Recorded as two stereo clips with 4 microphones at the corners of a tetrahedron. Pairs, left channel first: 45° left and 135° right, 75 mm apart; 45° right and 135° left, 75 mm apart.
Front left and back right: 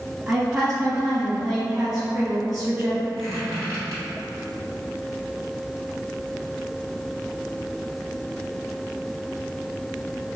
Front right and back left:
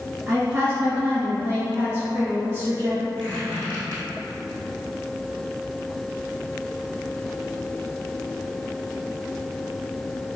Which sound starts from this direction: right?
A squeak, at 3.2 s.